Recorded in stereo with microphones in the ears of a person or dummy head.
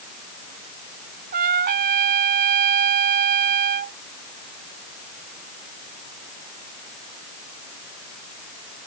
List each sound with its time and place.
1.3 s a trumpet: 45° right (ahead or behind)